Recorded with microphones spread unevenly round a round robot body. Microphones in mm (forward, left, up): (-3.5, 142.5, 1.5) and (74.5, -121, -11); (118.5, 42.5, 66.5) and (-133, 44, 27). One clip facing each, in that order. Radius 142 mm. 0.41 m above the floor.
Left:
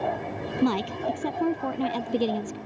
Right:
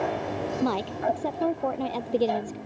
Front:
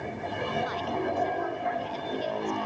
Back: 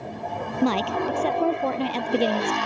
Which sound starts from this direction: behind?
A woman speaking, at 0.6 s.